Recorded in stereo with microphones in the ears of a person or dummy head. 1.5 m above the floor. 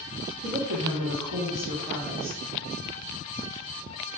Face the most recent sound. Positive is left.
turn(degrees=-80)